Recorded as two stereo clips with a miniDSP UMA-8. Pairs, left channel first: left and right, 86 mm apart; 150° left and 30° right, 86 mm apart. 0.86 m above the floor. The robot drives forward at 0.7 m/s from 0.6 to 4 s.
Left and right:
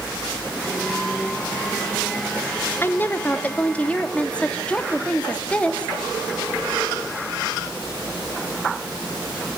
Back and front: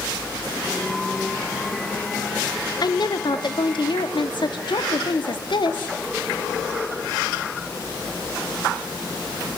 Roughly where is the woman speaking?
Behind left.